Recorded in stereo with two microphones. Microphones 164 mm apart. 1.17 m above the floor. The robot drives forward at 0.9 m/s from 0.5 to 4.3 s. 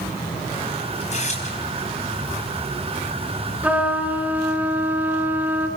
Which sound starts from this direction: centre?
A trumpet, at 3.6 s.